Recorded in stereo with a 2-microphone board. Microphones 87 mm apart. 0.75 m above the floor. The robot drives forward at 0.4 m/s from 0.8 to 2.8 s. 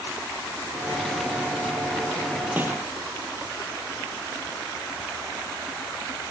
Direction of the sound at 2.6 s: 20° right (ahead or behind).